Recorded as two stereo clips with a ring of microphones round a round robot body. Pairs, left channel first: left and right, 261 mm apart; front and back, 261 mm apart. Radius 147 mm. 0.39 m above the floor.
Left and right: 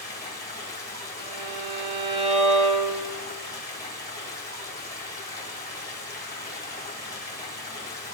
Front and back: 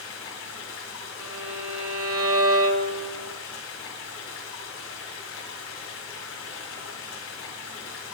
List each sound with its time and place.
0.0 s running water: 40° left, 1.7 m
1.2 s a violin: 155° right, 1.1 m